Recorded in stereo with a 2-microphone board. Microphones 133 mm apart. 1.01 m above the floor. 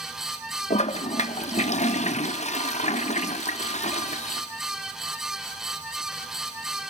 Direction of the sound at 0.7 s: 60° left (ahead or behind).